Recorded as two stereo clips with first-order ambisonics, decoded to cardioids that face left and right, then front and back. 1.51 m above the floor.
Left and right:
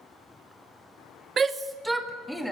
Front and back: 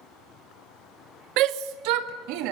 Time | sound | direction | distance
1.4 | a shout | 155° right | 0.9 m